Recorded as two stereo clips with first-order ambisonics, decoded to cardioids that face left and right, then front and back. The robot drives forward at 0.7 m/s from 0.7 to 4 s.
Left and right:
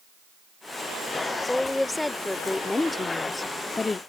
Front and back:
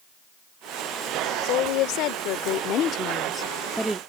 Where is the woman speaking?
5° left; by 4.0 s 135° left.